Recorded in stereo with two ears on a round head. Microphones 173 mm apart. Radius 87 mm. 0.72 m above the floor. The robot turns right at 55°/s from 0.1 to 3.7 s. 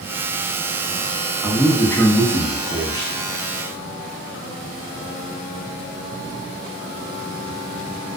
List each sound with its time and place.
1.4 s a man speaking: centre (ahead or behind), 0.5 m; by 3.1 s 20° left (ahead or behind), 0.5 m